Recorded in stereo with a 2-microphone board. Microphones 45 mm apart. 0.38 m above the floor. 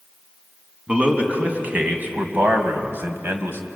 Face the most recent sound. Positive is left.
turn(degrees=-60)  # may be behind; listen again after turning